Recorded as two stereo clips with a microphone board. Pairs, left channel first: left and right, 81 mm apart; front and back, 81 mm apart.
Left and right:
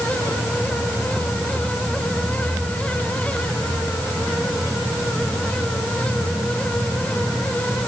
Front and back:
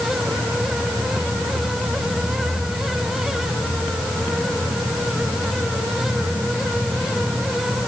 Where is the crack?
No crack in this recording.